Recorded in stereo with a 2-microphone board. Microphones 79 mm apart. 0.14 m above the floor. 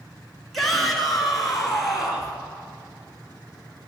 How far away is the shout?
About 1.3 m.